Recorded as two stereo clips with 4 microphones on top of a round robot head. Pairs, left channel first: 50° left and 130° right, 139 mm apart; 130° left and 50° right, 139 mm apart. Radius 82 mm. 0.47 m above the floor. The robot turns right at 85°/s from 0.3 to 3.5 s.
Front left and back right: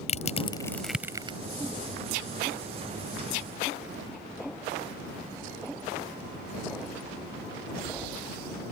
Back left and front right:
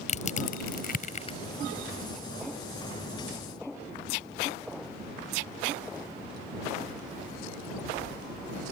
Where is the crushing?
90° left; by 1.4 s 175° right.